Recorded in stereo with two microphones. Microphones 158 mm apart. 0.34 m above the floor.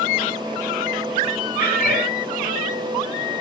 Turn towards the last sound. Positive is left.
turn(degrees=75)  # may be behind; listen again after turning